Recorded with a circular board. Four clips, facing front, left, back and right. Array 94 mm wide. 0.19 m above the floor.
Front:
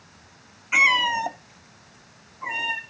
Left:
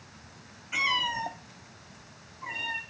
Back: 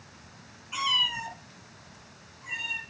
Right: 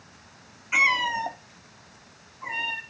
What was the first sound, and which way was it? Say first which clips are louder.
A cat meowing: right 5 dB, front 10 dB; 25° right.